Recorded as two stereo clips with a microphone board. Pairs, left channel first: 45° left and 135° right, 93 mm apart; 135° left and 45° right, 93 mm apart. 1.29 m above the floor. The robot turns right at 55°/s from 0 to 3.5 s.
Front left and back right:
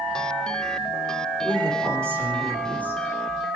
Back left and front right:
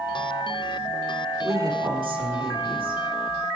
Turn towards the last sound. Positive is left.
turn(degrees=10)